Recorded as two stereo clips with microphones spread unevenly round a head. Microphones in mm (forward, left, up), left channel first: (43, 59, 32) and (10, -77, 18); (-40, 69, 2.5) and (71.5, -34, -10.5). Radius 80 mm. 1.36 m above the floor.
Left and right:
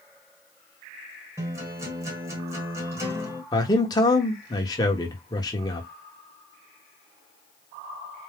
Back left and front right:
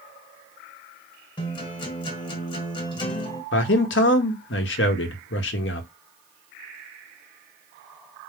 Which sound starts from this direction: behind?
A guitar, at 1.4 s.